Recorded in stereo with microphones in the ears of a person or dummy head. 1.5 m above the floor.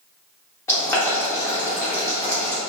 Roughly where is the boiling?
Centre.